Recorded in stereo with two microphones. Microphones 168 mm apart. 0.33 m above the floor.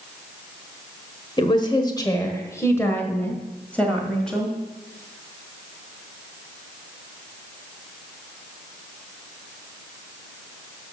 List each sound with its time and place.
1.4 s a woman speaking: 30° left (ahead or behind), 1.4 m; by 4.5 s 5° left (ahead or behind), 2 m